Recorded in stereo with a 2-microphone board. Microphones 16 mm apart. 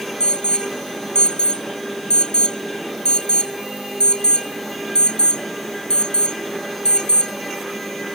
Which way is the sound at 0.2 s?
70° left (ahead or behind).